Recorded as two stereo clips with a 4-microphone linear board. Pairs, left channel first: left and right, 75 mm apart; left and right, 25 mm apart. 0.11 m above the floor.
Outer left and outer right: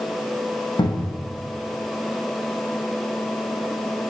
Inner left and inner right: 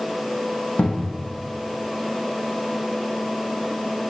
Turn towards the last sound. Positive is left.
turn(degrees=75)  # may be behind; listen again after turning